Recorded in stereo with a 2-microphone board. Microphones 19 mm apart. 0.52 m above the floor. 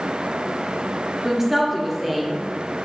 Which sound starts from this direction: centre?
A woman speaking, at 1.2 s.